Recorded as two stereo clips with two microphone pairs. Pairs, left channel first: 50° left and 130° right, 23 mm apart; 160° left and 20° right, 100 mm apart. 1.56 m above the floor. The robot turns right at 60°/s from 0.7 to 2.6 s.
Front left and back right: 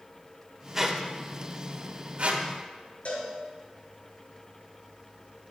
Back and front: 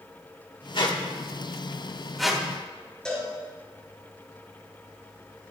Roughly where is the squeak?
Behind.